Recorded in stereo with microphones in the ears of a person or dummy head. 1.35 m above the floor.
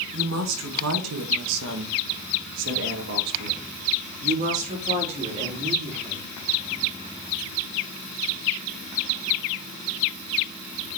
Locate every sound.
0.1 s a woman speaking: 60° right (ahead or behind), 1.9 m; by 6.3 s 30° right (ahead or behind), 3.5 m